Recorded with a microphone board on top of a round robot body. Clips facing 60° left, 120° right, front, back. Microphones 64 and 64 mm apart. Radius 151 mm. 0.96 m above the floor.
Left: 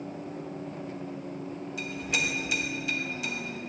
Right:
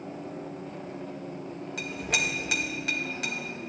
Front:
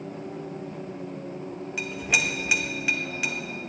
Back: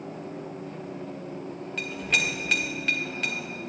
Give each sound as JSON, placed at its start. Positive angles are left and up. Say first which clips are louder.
{"t": 1.8, "sound": "a clink", "louder": "right 1 dB, front 1 dB", "azimuth_deg": -80, "distance_m": 1.2}